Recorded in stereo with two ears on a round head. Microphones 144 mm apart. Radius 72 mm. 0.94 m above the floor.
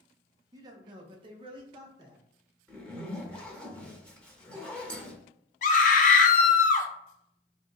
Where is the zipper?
5° left (ahead or behind), 0.8 m.